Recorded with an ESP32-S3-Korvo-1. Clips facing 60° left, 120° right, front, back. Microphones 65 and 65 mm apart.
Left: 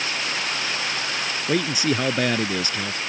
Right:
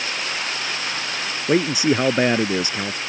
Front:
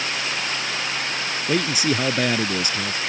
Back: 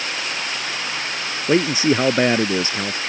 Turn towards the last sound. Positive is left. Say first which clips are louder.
# right 5 dB, back 6 dB
turn(degrees=-165)